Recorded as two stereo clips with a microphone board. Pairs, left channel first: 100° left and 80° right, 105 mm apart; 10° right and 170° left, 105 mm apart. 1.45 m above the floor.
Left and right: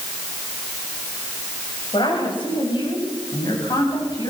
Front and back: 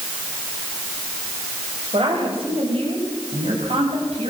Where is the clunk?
I don't hear a clunk.